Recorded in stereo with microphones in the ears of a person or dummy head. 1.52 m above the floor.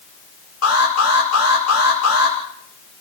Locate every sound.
0.6 s an alarm: 80° left, 8 m